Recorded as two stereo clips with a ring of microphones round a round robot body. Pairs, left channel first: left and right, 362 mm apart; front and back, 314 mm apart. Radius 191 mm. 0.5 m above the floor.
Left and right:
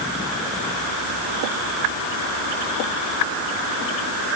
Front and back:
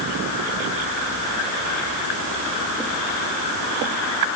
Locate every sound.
Only background noise.